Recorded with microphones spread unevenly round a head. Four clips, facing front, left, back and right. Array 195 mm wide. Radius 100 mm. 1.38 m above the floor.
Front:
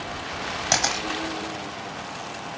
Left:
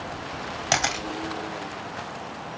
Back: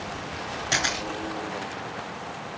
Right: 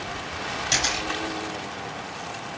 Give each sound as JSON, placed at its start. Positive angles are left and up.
{"t": 0.7, "sound": "a camera shutter", "azimuth_deg": 55, "distance_m": 1.8}